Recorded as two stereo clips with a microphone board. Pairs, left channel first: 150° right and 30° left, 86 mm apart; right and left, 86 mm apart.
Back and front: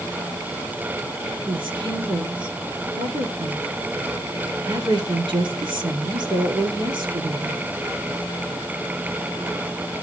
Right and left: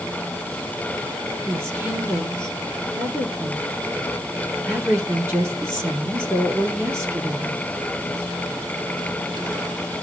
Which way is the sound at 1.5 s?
30° left.